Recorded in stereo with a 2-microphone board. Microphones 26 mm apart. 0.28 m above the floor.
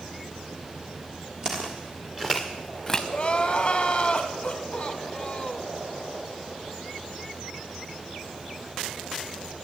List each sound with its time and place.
1.4 s footsteps: 30° right (ahead or behind), 3 m; by 3.0 s 20° left (ahead or behind), 1.4 m
3.1 s crying: 35° left (ahead or behind), 1.2 m